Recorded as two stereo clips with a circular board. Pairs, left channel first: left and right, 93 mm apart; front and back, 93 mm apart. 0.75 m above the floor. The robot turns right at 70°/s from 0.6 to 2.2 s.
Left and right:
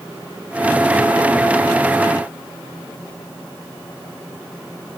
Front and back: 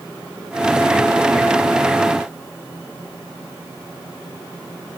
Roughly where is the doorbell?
No doorbell in this recording.